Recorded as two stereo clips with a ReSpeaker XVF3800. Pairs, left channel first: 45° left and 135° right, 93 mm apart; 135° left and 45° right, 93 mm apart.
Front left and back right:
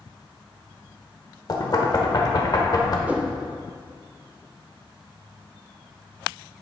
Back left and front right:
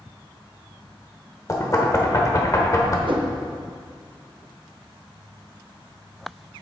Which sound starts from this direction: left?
Knocking, at 1.5 s.